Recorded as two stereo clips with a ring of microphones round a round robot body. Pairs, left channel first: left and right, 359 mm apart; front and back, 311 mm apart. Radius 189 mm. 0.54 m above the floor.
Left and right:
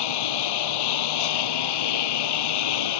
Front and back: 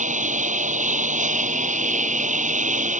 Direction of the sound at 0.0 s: 115° left.